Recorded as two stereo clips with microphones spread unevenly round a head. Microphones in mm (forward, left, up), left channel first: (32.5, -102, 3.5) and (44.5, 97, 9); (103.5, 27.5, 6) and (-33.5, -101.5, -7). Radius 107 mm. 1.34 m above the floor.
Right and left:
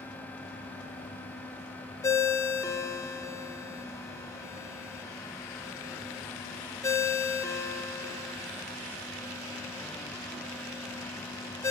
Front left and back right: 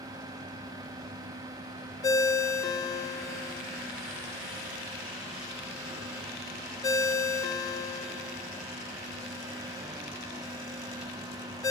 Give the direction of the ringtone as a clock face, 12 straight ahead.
1 o'clock.